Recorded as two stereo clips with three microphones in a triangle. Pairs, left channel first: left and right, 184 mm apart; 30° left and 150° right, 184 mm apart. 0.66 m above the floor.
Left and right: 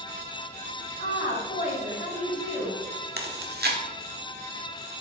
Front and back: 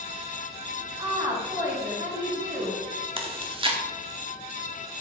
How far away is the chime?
I don't hear a chime.